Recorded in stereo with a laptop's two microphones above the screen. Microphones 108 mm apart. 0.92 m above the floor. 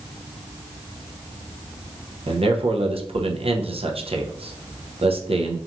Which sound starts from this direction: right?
A man speaking, at 2.3 s.